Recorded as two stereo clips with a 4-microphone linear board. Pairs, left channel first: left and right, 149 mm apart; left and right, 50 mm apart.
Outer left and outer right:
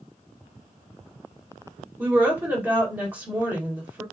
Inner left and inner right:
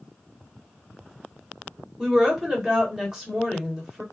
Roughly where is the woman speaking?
Centre.